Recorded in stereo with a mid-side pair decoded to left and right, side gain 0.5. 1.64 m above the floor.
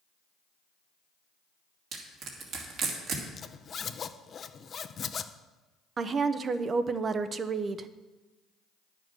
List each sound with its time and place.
1.9 s crushing: 65° right, 2.5 m
3.3 s a zipper: 40° left, 0.7 m
6.0 s a woman speaking: 40° right, 0.8 m